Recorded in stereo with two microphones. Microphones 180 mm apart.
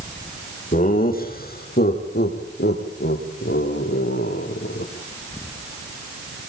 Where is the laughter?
50° left (ahead or behind), 6.5 m; by 4.9 s 75° left (ahead or behind), 7 m.